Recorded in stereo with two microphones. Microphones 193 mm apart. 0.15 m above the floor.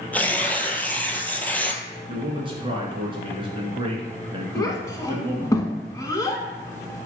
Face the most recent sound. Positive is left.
turn(degrees=20)  # may be behind; listen again after turning